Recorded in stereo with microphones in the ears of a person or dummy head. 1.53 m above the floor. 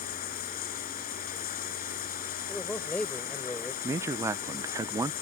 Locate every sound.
0.0 s running water: 45° left (ahead or behind)
2.5 s a man speaking: 10° left (ahead or behind)
3.8 s a man speaking: 20° right (ahead or behind)